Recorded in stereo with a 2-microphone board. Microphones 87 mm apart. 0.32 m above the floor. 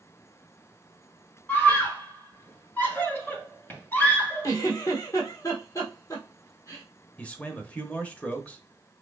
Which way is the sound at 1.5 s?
25° left (ahead or behind).